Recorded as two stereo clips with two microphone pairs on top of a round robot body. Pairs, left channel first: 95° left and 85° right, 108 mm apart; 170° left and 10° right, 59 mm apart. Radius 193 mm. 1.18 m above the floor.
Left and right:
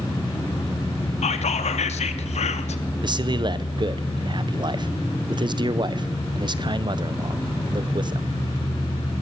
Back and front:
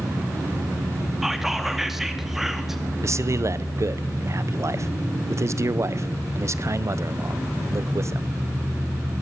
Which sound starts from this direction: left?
Whispering, at 1.2 s.